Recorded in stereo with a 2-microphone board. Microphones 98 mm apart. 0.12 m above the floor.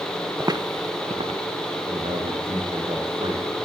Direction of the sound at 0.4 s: 25° right (ahead or behind).